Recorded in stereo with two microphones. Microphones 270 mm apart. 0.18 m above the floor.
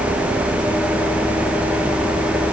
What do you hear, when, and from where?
Only background noise.